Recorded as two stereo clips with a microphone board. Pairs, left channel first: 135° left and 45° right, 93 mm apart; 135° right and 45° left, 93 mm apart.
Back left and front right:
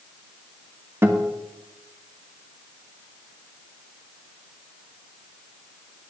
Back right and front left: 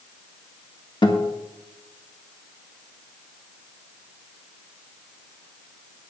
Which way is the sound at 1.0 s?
105° right.